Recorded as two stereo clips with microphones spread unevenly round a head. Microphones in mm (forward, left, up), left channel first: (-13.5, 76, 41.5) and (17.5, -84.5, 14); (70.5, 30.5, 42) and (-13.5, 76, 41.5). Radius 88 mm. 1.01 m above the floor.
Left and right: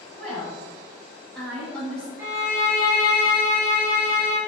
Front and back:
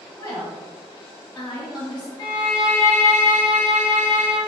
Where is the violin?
20° right, 1.0 m.